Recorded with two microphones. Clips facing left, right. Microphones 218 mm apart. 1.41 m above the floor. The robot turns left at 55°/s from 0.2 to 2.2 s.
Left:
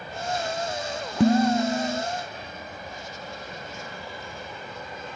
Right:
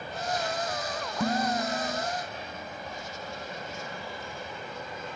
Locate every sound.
1.2 s dishes clattering: 85° left; by 2.0 s 40° left